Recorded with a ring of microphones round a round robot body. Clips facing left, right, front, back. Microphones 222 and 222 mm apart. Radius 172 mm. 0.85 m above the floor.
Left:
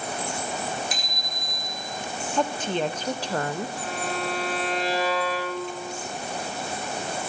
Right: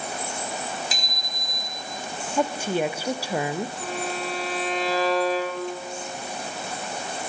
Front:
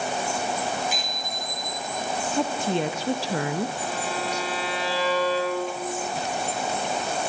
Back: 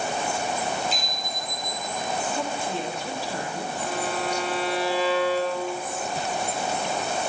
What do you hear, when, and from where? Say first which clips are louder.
0.9 s a bicycle bell: left 1 dB, even; 80° right, 3 m; by 1.9 s 95° right, 2.5 m
2.4 s a woman speaking: right 2 dB, front 5 dB; 10° right, 0.6 m
3.8 s a violin: even, back 1 dB; straight ahead, 4 m